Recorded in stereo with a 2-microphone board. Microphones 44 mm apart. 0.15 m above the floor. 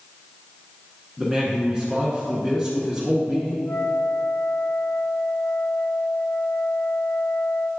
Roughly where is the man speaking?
Centre.